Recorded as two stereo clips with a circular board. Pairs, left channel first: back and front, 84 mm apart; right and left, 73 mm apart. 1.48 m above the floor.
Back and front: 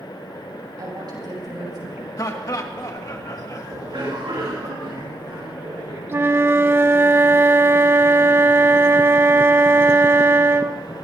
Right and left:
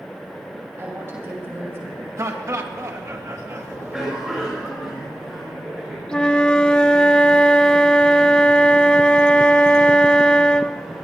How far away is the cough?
About 6.5 m.